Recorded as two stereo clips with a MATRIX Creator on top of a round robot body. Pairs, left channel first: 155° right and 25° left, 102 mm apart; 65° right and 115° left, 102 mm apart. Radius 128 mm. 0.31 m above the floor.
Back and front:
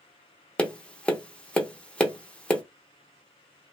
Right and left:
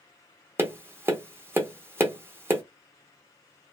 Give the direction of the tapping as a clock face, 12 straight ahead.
7 o'clock.